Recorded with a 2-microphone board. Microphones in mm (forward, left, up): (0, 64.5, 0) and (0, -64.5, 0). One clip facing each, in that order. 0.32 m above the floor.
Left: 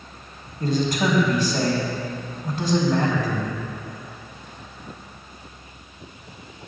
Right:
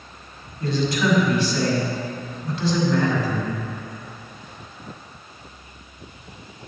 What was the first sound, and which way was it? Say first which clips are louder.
A man speaking: even; 50° left (ahead or behind).